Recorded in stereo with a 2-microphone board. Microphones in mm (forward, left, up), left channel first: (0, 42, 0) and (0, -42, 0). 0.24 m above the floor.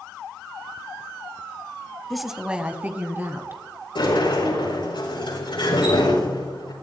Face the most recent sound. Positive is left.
turn(degrees=75)  # may be behind; listen again after turning